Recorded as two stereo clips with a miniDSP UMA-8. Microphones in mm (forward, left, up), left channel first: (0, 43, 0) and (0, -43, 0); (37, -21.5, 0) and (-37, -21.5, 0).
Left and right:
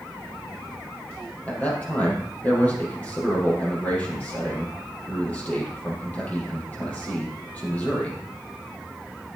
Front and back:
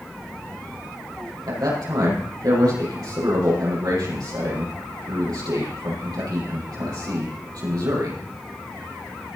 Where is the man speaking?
160° left, 5 m.